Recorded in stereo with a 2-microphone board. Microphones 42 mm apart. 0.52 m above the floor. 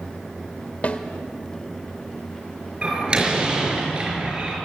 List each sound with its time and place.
0.8 s a snare drum: 35° left (ahead or behind), 1.9 m
2.8 s a door slam: 25° right (ahead or behind), 5 m